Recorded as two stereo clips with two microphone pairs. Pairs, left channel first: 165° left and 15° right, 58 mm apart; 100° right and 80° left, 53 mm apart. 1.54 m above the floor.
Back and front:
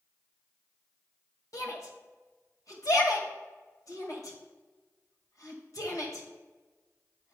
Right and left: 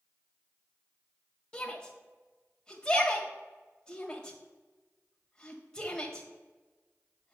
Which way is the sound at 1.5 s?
Straight behind.